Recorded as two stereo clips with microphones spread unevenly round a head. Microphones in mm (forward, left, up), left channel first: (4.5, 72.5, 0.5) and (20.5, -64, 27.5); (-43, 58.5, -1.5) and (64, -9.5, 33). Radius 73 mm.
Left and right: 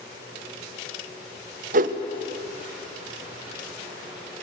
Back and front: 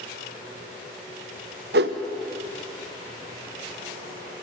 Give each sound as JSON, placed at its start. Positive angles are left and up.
{"t": 1.7, "sound": "a whoosh", "azimuth_deg": -50, "distance_m": 1.1}